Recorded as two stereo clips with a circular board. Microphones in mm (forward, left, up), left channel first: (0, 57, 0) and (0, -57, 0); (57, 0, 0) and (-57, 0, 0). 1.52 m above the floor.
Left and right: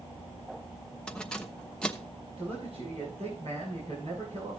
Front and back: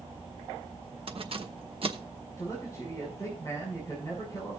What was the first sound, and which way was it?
Keys jangling, 170° left.